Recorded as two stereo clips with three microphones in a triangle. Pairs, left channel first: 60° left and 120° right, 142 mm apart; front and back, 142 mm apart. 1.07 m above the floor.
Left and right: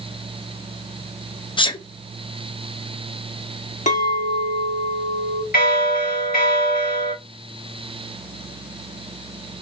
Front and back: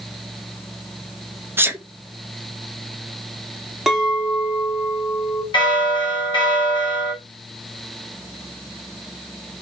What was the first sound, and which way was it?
A sneeze, 105° left.